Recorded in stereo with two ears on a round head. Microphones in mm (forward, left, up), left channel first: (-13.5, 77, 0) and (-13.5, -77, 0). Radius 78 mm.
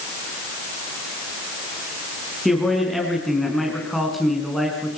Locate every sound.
2.5 s a man speaking: centre (ahead or behind), 6.5 m